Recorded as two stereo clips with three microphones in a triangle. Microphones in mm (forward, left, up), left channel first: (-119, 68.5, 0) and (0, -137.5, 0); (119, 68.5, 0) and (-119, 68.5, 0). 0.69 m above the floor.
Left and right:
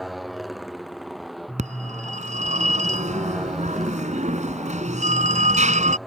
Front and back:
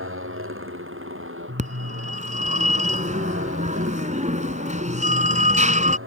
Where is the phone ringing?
120° right.